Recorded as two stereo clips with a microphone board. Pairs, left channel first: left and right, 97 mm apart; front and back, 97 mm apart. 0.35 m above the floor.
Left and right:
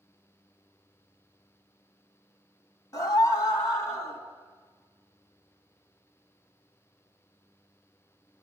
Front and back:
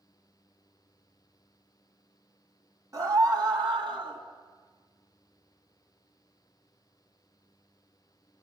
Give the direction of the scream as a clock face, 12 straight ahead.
8 o'clock.